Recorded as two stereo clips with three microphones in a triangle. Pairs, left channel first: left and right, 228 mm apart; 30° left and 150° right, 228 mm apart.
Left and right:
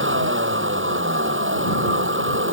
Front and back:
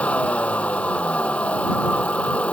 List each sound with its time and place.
0.0 s a vehicle: 55° right